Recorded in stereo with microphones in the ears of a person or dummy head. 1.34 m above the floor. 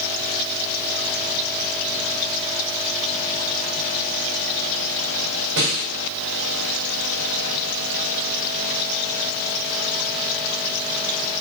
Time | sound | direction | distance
5.6 | a snare drum | 70° right (ahead or behind) | 5 m